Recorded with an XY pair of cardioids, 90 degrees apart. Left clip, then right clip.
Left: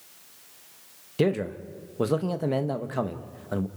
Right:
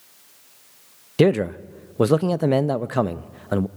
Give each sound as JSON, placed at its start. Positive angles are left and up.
{"t": 1.2, "sound": "a man speaking", "azimuth_deg": -55, "distance_m": 0.7}